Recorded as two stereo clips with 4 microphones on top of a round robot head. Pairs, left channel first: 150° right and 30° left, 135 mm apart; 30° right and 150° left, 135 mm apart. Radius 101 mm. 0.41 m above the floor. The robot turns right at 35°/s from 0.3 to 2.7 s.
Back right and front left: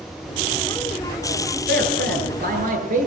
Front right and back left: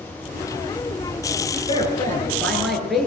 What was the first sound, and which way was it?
A man speaking, 25° left.